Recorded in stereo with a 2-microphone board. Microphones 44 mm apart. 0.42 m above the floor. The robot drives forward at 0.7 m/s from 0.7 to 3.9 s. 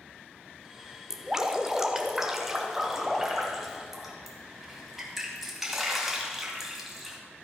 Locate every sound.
1.1 s dripping: 15° right (ahead or behind), 0.8 m; by 7.2 s 5° right (ahead or behind), 2.5 m